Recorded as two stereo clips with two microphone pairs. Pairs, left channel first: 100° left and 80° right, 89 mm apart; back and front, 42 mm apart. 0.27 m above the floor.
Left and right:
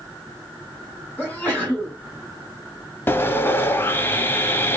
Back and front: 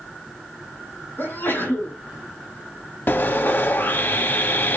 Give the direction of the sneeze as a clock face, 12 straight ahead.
6 o'clock.